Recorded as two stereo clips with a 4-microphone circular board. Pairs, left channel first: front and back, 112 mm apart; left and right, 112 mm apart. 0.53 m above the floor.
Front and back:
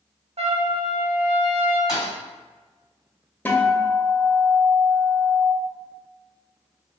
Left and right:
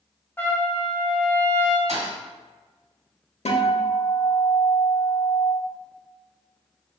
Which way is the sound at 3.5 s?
75° left.